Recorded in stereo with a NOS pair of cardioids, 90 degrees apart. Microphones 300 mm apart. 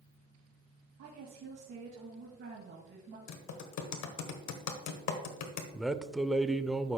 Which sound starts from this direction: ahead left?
Typing on a keyboard, at 3.3 s.